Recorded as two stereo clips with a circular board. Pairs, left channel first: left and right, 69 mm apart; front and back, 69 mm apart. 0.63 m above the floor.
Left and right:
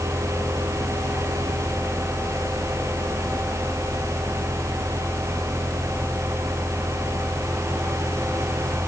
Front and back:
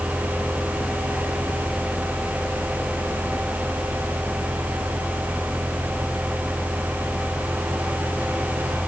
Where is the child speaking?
I don't hear a child speaking.